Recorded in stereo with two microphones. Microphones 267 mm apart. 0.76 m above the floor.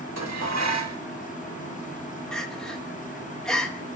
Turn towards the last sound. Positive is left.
turn(degrees=0)  # may be behind; listen again after turning